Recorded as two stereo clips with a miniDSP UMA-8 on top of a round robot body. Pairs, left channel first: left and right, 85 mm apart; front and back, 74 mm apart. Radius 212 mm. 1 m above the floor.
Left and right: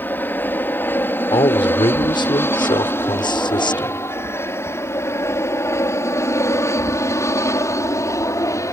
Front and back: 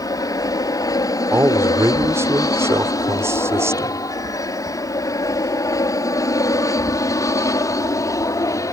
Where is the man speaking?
125° left.